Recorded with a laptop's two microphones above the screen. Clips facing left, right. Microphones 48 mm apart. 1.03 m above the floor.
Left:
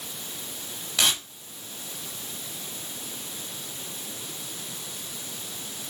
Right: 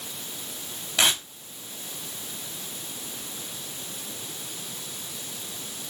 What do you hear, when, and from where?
1.0 s tearing paper: 25° right (ahead or behind), 1.8 m